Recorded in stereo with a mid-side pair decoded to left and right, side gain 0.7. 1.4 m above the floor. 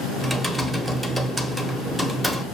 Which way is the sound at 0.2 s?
10° right.